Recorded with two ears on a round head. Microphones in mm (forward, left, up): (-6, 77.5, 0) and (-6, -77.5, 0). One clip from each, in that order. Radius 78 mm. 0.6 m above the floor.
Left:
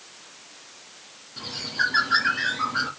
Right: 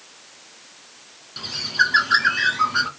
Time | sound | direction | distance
1.4 | a bird | 65° right (ahead or behind) | 3 m